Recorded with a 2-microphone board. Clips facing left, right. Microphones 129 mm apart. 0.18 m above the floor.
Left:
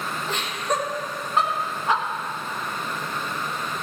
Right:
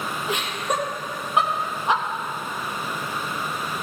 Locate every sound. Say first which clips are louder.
0.3 s laughter: even; 10° right (ahead or behind), 5.5 m; by 2.0 s 20° right (ahead or behind), 4 m